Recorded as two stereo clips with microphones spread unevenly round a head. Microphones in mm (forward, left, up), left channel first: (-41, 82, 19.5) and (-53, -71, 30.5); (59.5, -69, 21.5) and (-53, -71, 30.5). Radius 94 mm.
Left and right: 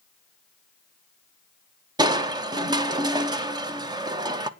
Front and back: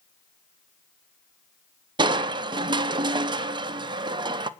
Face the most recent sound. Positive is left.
turn(degrees=-150)